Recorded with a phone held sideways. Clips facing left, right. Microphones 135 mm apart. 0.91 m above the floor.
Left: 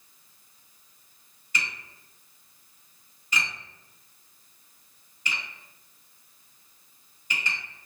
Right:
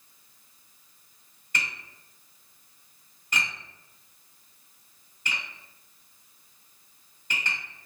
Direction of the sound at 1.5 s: 55° right (ahead or behind).